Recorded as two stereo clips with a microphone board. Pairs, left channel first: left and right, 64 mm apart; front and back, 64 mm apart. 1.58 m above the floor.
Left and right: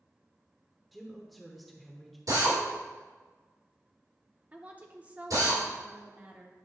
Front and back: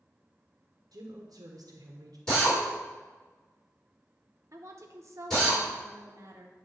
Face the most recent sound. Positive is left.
turn(degrees=-150)